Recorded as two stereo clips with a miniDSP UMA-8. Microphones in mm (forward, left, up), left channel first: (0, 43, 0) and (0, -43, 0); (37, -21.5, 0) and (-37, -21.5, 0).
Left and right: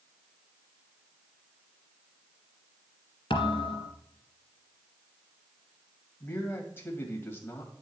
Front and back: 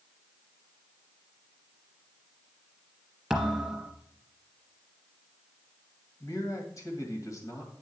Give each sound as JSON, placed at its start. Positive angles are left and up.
{"t": 3.3, "sound": "a thud", "azimuth_deg": 95, "distance_m": 1.7}
{"t": 6.2, "sound": "a man speaking", "azimuth_deg": 30, "distance_m": 1.9}